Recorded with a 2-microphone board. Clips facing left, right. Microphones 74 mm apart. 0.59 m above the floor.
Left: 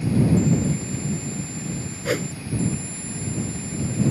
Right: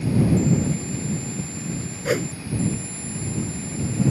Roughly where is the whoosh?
Centre.